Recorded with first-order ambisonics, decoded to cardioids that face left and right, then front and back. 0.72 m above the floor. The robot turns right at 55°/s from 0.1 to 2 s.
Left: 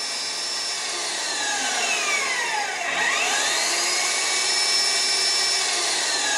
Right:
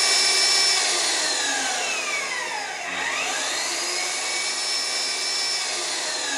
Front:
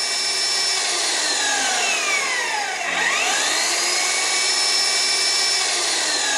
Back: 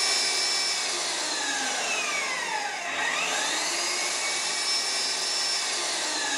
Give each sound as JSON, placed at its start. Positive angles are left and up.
{"t": 0.0, "sound": "an engine running", "azimuth_deg": -85, "distance_m": 1.1}